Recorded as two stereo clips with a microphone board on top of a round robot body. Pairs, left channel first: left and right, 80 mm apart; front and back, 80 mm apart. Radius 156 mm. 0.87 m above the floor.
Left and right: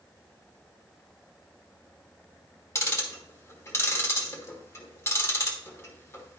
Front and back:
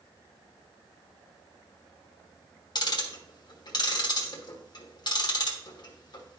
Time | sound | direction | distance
2.8 | ticking | 30° left | 1.2 m